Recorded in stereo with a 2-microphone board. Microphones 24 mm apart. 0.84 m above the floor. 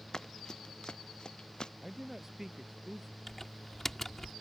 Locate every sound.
0.1 s running footsteps: 25° left (ahead or behind); by 1.7 s 35° left (ahead or behind)
1.8 s a man speaking: 20° right (ahead or behind)
3.3 s typing on a keyboard: 15° left (ahead or behind)